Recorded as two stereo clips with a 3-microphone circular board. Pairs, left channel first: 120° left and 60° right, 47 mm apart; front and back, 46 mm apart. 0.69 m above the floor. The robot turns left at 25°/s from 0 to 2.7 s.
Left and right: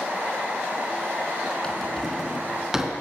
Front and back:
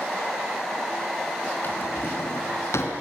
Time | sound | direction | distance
1.6 | a drawer | 45° left | 3.5 m